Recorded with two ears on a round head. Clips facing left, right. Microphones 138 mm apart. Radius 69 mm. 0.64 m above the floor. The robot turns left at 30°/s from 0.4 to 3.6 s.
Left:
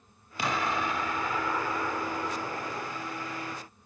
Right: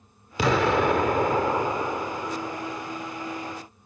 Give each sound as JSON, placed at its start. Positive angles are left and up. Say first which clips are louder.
{"t": 0.4, "sound": "an explosion", "louder": "right 9 dB", "azimuth_deg": -115}